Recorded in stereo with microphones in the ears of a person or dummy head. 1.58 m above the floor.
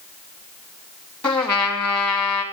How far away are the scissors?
No scissors in this recording.